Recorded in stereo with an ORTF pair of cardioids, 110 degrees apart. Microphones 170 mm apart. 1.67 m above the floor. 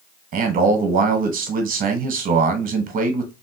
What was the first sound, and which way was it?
A man speaking, 55° right.